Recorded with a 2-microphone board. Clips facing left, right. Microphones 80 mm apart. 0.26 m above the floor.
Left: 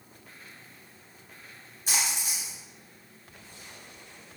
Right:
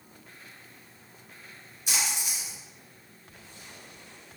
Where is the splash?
35° left (ahead or behind), 1.3 m.